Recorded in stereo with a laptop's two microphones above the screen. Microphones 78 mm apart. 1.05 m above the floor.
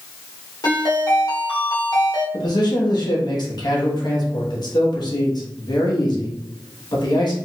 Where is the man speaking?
60° left (ahead or behind), 1.1 m.